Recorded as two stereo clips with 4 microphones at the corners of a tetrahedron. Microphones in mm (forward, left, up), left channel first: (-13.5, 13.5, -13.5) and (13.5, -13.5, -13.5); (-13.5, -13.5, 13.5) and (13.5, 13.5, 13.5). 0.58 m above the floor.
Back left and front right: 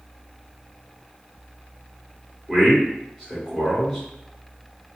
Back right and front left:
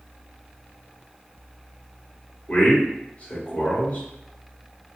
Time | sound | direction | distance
2.5 | a man speaking | 130° right | 1.9 m